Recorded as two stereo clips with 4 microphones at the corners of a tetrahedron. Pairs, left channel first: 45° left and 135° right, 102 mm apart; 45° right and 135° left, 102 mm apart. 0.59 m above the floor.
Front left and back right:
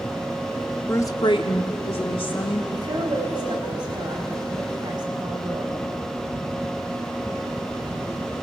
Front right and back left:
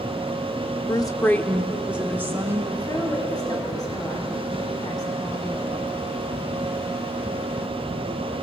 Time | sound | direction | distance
0.9 | a woman speaking | 20° right | 1.0 m
2.7 | a woman speaking | 95° right | 4 m